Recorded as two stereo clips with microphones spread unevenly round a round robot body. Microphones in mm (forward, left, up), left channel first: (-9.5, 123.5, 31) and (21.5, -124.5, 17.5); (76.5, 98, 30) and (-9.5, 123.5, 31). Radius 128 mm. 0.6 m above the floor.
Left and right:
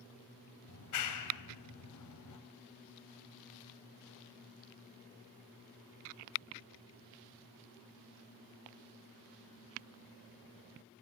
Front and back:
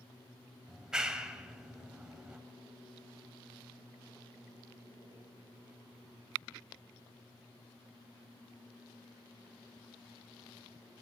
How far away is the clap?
About 3 m.